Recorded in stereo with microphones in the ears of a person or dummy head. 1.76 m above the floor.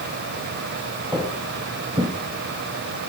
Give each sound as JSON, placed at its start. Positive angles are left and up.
{"t": 1.1, "sound": "footsteps", "side_deg": -10, "distance_m": 3.0}